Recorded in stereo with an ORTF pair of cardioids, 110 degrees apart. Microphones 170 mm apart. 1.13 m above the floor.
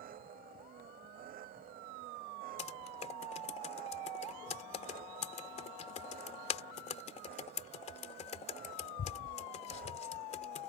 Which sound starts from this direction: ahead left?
Typing on a keyboard, at 2.6 s.